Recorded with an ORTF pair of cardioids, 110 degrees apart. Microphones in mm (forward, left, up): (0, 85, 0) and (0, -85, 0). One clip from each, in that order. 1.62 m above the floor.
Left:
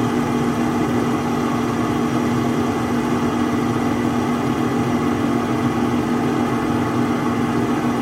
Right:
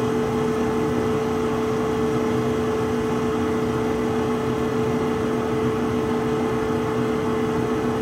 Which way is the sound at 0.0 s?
40° left.